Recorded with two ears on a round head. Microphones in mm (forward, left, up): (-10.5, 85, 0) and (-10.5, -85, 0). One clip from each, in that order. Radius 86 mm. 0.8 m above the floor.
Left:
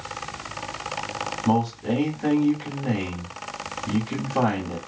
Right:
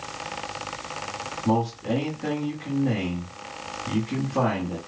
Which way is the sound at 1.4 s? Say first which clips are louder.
Left 1 dB; 20° left (ahead or behind).